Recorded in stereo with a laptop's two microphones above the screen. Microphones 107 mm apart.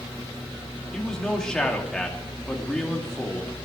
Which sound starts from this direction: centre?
A man speaking, at 0.9 s.